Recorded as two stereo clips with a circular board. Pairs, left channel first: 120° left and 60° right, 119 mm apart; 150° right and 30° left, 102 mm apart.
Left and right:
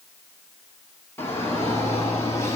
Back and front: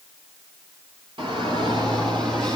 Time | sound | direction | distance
1.2 | a shout | 50° left | 4 m